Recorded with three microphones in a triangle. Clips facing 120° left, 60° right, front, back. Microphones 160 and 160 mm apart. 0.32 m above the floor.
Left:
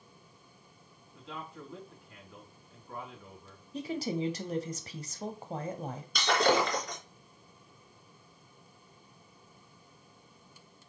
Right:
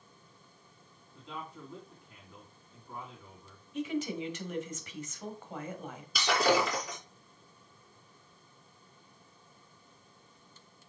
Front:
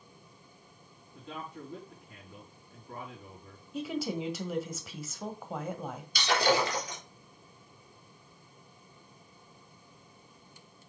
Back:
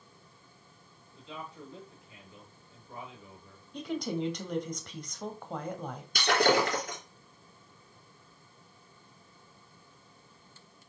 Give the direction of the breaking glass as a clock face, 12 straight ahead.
5 o'clock.